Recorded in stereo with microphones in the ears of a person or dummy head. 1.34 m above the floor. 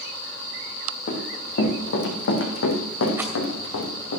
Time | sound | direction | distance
1.1 | running footsteps | 55° left (ahead or behind) | 4 m
3.2 | a rattle | 10° right (ahead or behind) | 2.5 m